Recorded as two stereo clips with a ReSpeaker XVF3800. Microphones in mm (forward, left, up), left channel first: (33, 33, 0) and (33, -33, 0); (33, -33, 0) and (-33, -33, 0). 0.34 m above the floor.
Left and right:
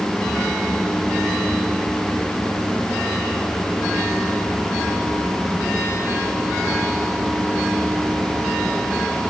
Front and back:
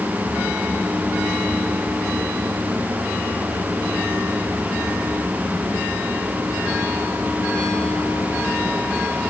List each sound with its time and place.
Only background noise.